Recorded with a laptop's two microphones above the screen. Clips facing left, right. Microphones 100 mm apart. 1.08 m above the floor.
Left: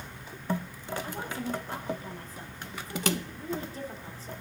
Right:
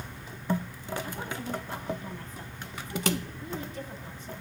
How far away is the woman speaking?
About 7.5 m.